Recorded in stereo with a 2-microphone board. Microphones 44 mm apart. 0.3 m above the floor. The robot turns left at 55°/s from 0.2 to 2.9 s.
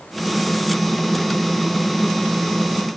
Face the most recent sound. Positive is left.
No sound to turn to.